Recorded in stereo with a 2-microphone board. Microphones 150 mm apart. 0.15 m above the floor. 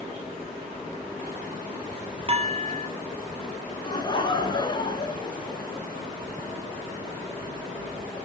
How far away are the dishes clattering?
About 2.5 m.